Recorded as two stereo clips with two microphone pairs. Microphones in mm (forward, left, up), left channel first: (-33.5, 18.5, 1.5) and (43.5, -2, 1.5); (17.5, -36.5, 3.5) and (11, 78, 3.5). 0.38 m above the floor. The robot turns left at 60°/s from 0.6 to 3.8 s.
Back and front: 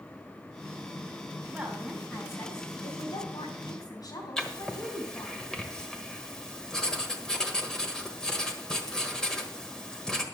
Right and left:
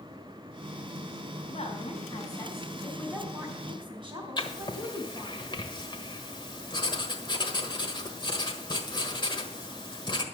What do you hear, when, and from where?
1.5 s a woman speaking: 90° right, 3.5 m; by 5.4 s 130° left, 3.5 m
4.4 s writing: 115° right, 1.3 m